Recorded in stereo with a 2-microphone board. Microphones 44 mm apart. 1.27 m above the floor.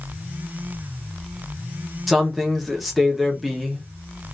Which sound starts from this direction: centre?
A man speaking, at 2.1 s.